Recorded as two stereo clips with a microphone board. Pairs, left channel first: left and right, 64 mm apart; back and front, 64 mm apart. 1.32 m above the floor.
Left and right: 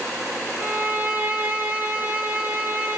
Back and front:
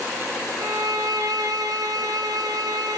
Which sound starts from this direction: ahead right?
A violin, at 0.6 s.